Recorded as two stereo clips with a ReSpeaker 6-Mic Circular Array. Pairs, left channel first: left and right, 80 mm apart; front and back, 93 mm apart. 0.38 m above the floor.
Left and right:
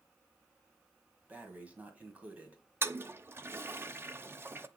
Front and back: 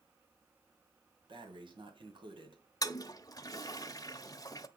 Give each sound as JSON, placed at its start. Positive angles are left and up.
{"t": 1.3, "sound": "breathing", "azimuth_deg": -160, "distance_m": 1.7}
{"t": 2.8, "sound": "a toilet flushing", "azimuth_deg": -35, "distance_m": 0.6}